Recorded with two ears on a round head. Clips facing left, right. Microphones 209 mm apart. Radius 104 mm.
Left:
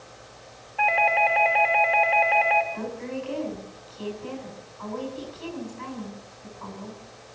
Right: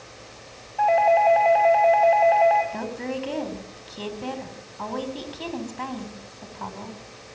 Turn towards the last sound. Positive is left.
turn(degrees=-75)  # may be behind; listen again after turning